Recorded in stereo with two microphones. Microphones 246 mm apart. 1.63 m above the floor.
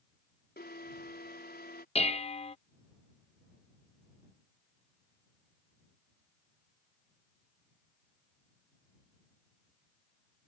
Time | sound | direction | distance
0.6 | an alarm | 40° left (ahead or behind) | ?
1.9 | dishes clattering | 25° left (ahead or behind) | ?